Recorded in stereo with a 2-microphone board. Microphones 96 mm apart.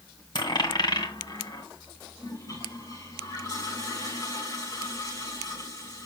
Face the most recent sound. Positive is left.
turn(degrees=40)  # may be behind; listen again after turning